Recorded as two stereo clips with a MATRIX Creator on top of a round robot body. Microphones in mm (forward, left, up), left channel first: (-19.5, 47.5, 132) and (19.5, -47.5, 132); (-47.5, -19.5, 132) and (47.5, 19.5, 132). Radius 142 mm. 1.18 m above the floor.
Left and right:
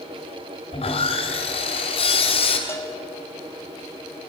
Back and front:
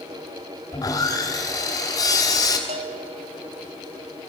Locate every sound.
0.7 s sawing: 145° left, 2.5 m
2.7 s a bell: 45° left, 0.8 m